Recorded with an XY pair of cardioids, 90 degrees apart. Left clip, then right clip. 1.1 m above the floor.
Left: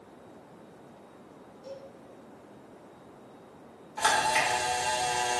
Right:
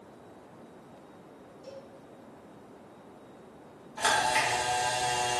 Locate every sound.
1.6 s a cowbell: 30° right, 1.6 m
4.0 s a camera shutter: 15° left, 1.3 m